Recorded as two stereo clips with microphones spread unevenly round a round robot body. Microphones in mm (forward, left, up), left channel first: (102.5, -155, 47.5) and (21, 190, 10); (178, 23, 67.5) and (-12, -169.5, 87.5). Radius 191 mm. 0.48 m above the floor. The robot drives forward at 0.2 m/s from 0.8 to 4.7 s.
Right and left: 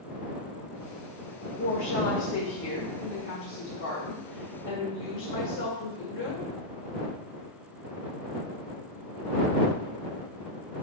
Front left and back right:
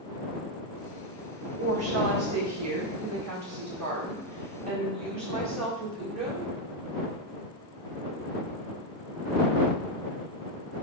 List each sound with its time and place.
1.6 s a woman speaking: 115° right, 1.6 m; by 6.5 s 135° right, 1.9 m